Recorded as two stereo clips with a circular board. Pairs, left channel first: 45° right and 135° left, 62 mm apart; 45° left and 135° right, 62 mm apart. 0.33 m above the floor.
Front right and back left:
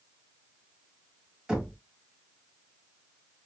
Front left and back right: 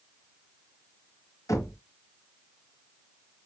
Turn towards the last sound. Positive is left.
turn(degrees=60)